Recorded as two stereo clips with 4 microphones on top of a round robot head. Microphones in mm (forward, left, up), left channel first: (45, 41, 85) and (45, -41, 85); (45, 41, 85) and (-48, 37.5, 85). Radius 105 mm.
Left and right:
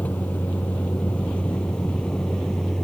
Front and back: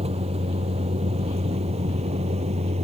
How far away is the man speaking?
I don't hear a man speaking.